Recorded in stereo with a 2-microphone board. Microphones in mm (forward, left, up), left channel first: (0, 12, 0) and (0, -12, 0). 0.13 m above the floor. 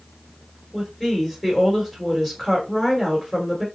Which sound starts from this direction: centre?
A woman speaking, at 0.7 s.